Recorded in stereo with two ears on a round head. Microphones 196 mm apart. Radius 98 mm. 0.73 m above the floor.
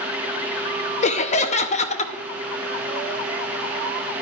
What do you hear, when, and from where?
1.0 s laughter: 30° left (ahead or behind), 0.7 m